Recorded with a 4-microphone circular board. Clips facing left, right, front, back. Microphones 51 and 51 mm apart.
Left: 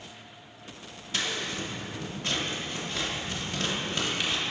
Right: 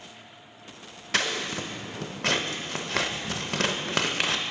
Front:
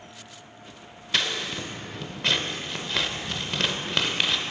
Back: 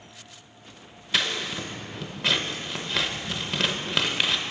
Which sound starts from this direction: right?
Scissors, at 1.1 s.